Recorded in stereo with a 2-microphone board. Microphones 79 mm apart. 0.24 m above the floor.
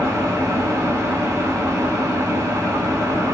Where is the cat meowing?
I don't hear a cat meowing.